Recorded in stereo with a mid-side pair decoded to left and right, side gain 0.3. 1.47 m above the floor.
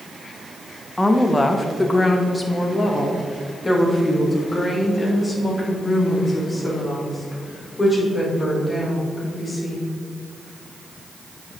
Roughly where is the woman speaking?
Ahead.